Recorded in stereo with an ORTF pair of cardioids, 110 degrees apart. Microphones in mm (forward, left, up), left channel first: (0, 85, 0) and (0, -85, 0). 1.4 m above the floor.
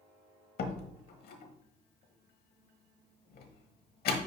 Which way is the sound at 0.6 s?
65° left.